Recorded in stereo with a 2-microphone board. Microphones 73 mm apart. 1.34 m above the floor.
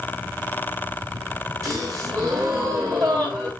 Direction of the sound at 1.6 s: 45° right (ahead or behind).